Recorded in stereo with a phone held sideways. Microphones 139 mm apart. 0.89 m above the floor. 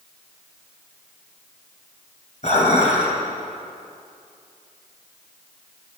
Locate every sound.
2.4 s dishes clattering: 60° left (ahead or behind), 2.5 m